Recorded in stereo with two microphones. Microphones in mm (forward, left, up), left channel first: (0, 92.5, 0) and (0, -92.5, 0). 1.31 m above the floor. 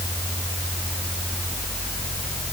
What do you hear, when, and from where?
Only background noise.